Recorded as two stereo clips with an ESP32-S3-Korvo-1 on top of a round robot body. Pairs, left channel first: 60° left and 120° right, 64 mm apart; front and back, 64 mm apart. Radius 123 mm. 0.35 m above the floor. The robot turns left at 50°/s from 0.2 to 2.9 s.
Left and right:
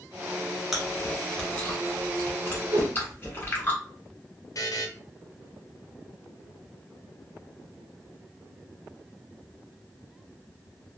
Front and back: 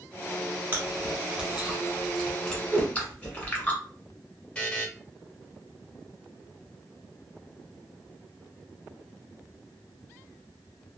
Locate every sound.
0.7 s chewing: 160° left, 1.5 m; by 3.7 s 55° left, 1.5 m
2.7 s a whoosh: 105° right, 0.5 m; by 2.9 s 115° right, 0.5 m
4.5 s a buzzer: 75° left, 0.8 m